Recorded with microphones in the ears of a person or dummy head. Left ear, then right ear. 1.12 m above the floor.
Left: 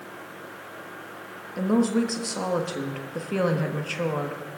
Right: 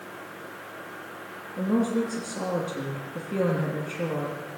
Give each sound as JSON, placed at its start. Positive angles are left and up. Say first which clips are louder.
{"t": 1.6, "sound": "a woman speaking", "louder": "left 2 dB", "side_deg": 45, "distance_m": 1.3}